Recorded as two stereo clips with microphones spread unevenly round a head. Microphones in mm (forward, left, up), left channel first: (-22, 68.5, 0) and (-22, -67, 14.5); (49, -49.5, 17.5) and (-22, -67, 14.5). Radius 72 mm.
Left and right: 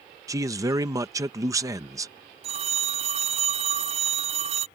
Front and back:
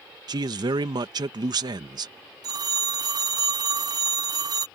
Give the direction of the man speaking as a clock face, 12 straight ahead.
5 o'clock.